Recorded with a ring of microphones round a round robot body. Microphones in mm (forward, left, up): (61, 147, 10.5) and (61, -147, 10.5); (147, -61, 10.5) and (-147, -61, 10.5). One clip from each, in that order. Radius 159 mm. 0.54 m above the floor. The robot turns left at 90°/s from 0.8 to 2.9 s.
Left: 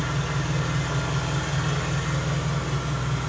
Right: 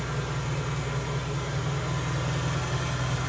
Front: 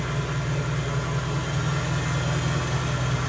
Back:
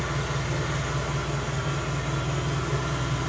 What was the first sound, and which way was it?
An engine running, 120° left.